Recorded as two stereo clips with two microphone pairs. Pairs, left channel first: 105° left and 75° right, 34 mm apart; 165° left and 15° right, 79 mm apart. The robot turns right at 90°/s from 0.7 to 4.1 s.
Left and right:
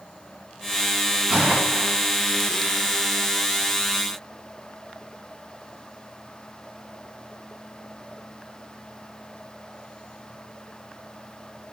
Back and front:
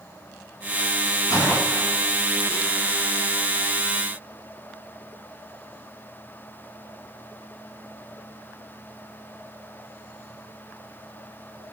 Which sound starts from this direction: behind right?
A gunshot, at 1.3 s.